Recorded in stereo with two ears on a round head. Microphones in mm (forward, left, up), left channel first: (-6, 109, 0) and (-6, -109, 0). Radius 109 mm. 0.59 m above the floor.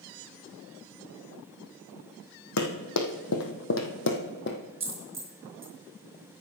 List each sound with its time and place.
2.6 s running footsteps: 75° left (ahead or behind), 2.0 m; by 4.6 s 45° left (ahead or behind), 1.6 m
4.8 s a dropped coin: 10° right (ahead or behind), 4 m